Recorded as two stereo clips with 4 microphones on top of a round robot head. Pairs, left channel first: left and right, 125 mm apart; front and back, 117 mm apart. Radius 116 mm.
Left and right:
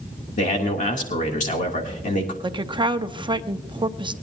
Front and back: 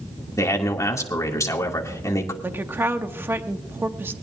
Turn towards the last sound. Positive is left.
turn(degrees=-115)